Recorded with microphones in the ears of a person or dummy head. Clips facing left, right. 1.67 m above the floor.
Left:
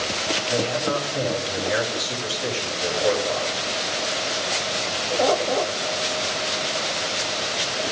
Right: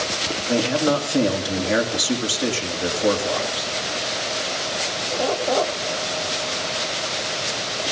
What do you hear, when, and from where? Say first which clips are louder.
0.5 s a man speaking: right 5 dB; 45° right (ahead or behind), 3 m